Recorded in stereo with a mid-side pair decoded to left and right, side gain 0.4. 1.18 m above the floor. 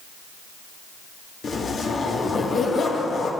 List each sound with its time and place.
1.4 s a zipper: 55° left, 1.6 m